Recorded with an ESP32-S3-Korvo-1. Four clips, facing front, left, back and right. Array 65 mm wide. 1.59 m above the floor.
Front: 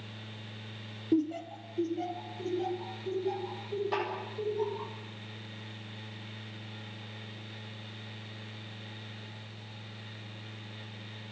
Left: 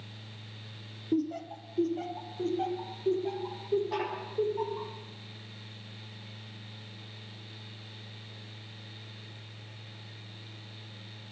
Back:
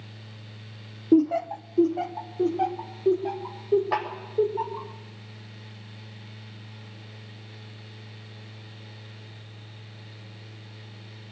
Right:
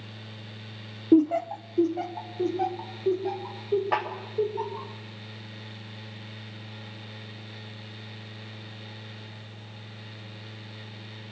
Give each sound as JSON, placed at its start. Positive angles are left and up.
{"t": 1.1, "sound": "laughter", "azimuth_deg": -120, "distance_m": 0.7}
{"t": 3.9, "sound": "a snare drum", "azimuth_deg": -125, "distance_m": 7.5}